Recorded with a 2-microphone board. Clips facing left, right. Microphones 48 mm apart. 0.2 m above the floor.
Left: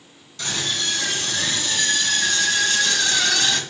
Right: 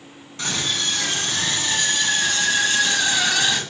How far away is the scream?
About 2 m.